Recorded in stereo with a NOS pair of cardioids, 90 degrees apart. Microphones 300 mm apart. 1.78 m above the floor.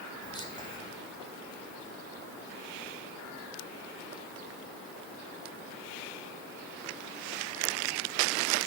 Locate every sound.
0.2 s whispering: 15° left, 2.5 m